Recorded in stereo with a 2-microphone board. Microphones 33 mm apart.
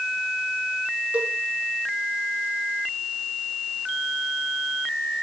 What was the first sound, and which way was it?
A cowbell, 40° right (ahead or behind).